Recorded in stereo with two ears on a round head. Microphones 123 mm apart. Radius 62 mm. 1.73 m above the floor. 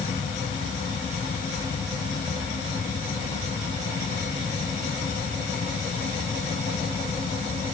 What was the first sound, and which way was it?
Only background noise.